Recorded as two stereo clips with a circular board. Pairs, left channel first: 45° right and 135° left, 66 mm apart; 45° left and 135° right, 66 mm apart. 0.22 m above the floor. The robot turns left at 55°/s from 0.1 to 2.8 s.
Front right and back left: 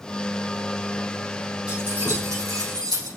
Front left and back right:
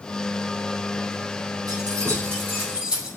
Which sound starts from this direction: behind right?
Keys jangling, at 1.7 s.